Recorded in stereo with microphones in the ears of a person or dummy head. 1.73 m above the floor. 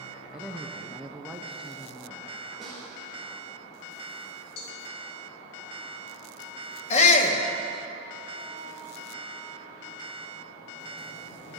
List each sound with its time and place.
0.3 s a woman speaking: 5° right (ahead or behind), 0.8 m
2.6 s a snare drum: 5° left (ahead or behind), 4.5 m
4.6 s a cowbell: 65° left (ahead or behind), 3 m
6.9 s a shout: 45° left (ahead or behind), 2 m